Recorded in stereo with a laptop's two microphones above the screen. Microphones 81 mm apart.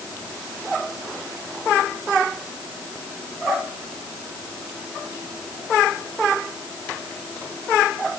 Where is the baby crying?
No baby crying in this recording.